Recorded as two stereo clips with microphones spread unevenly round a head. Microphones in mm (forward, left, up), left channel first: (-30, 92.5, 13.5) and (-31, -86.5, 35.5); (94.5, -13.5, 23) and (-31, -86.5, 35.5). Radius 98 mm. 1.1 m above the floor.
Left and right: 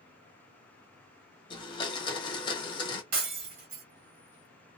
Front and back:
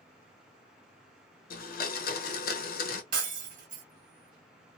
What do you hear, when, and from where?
1.5 s a blender: 25° left, 0.7 m
3.1 s breaking glass: 125° right, 1.4 m